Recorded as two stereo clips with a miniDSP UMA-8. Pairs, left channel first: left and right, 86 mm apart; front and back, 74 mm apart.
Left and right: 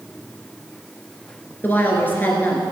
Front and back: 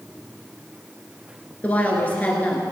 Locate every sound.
1.6 s a woman speaking: 45° left, 1.8 m